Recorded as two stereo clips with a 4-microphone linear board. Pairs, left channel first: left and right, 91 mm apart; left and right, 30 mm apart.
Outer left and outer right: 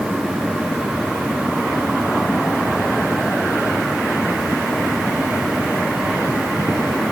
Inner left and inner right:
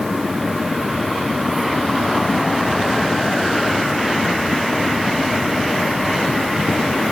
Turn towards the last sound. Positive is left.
No sound to turn to.